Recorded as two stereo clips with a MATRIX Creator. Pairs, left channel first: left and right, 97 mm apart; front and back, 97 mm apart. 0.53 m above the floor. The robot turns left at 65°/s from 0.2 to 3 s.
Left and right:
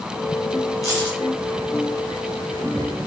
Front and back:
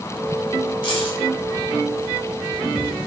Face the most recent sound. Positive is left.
turn(degrees=-105)